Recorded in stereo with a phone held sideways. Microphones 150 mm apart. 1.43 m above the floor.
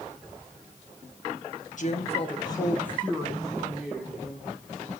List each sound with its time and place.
1.8 s a woman speaking: 55° left (ahead or behind), 1.4 m; by 4.5 s 15° right (ahead or behind), 3 m